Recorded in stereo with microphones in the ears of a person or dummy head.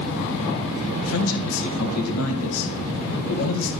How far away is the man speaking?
About 1.7 m.